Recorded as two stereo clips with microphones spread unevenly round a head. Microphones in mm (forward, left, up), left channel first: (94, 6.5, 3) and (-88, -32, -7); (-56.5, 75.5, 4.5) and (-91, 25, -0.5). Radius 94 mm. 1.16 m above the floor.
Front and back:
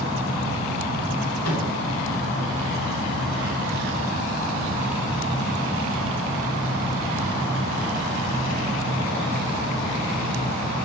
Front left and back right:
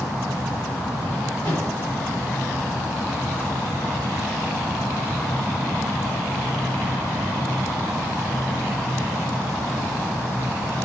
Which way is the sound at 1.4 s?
5° left.